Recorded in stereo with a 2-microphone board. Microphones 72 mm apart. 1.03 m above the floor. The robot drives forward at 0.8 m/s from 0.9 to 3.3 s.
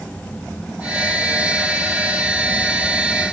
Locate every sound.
Only background noise.